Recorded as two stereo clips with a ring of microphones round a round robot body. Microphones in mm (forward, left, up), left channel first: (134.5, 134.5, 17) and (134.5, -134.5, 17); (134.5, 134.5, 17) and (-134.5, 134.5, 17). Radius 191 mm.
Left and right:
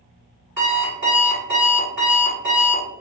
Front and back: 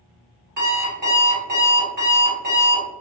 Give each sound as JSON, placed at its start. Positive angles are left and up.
{"t": 0.6, "sound": "an alarm clock", "azimuth_deg": -150, "distance_m": 1.3}